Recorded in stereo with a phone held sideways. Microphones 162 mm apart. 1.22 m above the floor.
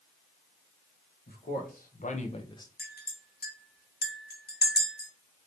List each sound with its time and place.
1.3 s a man speaking: 70° left (ahead or behind), 1.0 m; by 2.7 s 20° left (ahead or behind), 0.5 m
2.8 s a clink: 70° left (ahead or behind), 0.7 m